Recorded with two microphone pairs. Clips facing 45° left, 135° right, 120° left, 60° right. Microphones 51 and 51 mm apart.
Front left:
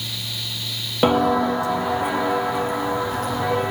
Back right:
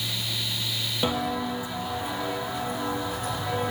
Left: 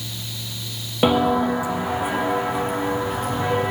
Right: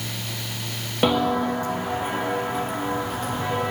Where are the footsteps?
35° left, 0.8 m; by 3.7 s 45° left, 4.5 m.